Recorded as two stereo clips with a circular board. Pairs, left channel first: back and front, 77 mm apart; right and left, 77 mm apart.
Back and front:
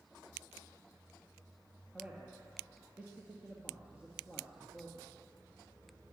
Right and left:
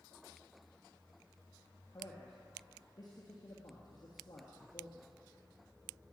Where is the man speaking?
70° right, 2.5 m.